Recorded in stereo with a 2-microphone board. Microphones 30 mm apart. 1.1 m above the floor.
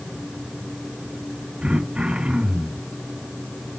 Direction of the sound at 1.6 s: 40° right (ahead or behind).